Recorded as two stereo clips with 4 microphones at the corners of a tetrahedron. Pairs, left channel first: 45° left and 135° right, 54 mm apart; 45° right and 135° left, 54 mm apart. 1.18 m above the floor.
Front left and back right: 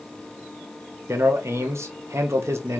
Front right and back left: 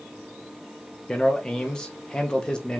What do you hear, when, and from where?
1.1 s a man speaking: 120° right, 0.7 m